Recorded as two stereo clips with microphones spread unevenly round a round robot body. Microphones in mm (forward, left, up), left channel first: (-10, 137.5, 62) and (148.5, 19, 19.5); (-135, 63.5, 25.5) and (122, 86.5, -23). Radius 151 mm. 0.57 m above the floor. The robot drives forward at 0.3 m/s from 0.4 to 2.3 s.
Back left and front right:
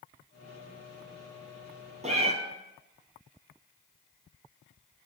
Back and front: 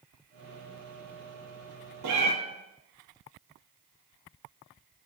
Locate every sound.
2.0 s a cat meowing: 25° left, 1.5 m